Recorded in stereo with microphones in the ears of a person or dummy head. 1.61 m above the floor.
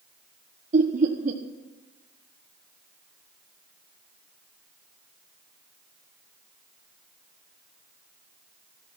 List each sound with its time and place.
0.7 s laughter: 45° right (ahead or behind), 1.2 m